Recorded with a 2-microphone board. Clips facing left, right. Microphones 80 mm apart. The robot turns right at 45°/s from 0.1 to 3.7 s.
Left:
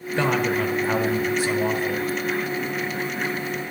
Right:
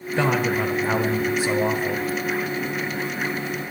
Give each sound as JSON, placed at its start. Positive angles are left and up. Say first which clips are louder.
{"t": 0.2, "sound": "a man speaking", "louder": "even", "side_deg": -5, "distance_m": 0.8}